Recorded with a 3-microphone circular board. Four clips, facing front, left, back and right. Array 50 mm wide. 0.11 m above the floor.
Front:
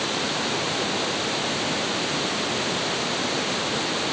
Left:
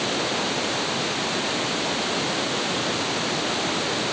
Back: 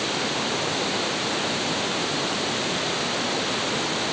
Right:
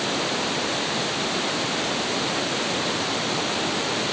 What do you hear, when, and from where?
Only background noise.